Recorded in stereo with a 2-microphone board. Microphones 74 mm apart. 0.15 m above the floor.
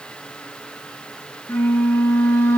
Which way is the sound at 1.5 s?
30° left (ahead or behind).